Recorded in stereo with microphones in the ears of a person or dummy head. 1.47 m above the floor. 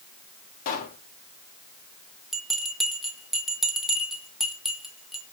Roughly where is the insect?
I don't hear an insect.